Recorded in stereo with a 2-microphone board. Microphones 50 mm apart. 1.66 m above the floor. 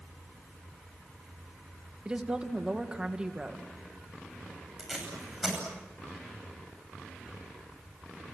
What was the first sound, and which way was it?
A woman speaking, 20° right (ahead or behind).